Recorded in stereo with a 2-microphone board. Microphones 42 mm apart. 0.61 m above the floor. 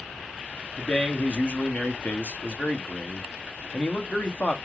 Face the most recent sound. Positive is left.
turn(degrees=30)  # may be behind; listen again after turning